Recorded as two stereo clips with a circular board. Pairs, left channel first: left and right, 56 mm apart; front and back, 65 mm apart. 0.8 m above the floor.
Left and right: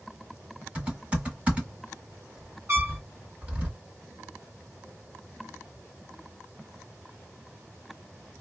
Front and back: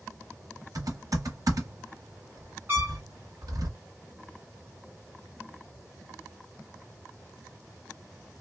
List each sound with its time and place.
0.8 s typing on a keyboard: 155° right, 1.6 m
2.7 s a trumpet: 125° right, 1.4 m